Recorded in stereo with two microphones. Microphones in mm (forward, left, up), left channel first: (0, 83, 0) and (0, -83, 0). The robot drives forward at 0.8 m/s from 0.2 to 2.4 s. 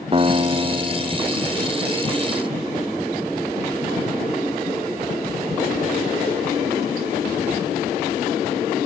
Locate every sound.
0.1 s a guitar: 35° right (ahead or behind); by 1.8 s 25° right (ahead or behind)